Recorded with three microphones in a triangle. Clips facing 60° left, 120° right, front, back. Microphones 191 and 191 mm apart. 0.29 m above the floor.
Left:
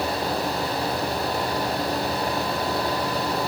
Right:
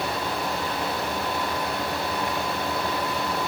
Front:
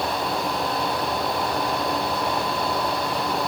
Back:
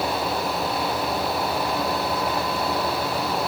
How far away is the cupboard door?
I don't hear a cupboard door.